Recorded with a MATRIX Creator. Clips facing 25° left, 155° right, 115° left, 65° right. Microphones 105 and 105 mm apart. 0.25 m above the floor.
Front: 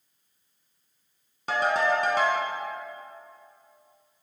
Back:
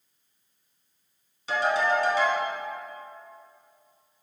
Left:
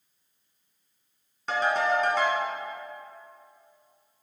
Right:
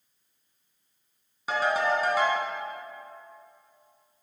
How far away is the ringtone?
About 1.3 m.